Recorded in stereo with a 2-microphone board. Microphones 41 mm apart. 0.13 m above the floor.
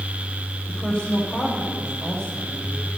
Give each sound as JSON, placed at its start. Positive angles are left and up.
{"t": 0.7, "sound": "a woman speaking", "side_deg": 35, "distance_m": 6.5}